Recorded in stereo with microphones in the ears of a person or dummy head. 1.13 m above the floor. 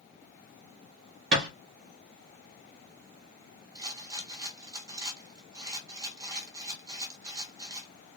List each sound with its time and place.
1.3 s a thud: 65° right (ahead or behind), 0.9 m
3.8 s a rattle: 15° right (ahead or behind), 0.6 m